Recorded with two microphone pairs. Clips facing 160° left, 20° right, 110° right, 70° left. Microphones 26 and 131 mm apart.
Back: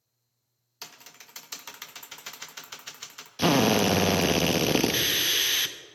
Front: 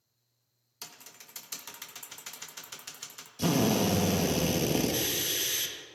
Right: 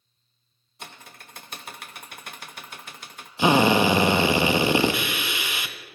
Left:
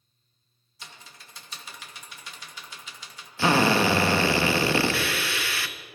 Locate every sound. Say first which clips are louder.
0.8 s typing on a keyboard: back 3 dB, right 5 dB; 135° right, 0.7 m
3.4 s a drill: back 5 dB, right 3 dB; straight behind, 0.7 m